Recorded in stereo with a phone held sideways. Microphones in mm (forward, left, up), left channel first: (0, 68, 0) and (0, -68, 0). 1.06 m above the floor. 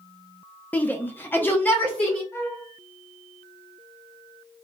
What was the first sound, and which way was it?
A shout, 15° left (ahead or behind).